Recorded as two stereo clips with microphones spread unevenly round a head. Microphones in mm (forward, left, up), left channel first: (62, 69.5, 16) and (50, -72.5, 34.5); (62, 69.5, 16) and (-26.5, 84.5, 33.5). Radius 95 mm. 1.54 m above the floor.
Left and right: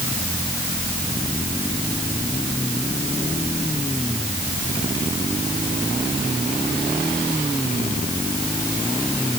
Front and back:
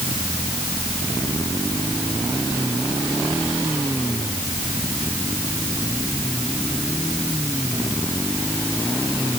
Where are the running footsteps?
No running footsteps in this recording.